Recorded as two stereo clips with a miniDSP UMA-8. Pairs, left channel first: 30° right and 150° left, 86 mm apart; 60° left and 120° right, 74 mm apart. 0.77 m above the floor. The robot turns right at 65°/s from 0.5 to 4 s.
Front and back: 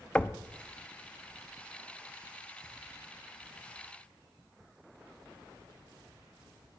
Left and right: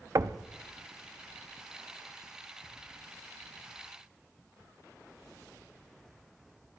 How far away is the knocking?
About 0.6 m.